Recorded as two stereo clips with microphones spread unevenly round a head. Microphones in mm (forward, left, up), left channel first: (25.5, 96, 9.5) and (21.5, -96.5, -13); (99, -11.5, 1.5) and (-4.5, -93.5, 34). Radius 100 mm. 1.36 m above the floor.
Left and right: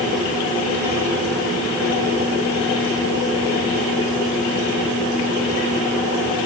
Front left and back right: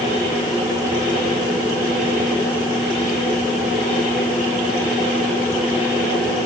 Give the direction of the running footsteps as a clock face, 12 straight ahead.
I don't hear running footsteps.